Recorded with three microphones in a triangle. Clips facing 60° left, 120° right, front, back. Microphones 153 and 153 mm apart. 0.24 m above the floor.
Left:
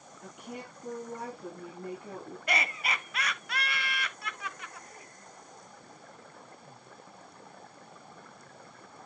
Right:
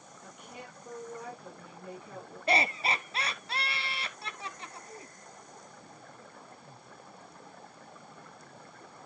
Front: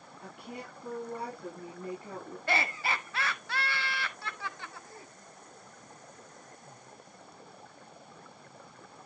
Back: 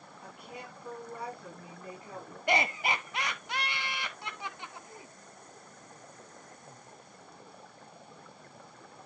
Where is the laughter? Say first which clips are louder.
Right 5 dB, back 3 dB; 130° right, 1.3 m.